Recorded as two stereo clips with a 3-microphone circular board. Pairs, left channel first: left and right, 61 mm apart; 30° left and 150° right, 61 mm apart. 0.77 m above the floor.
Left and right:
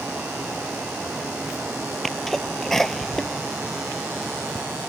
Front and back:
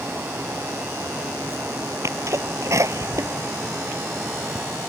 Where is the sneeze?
175° left.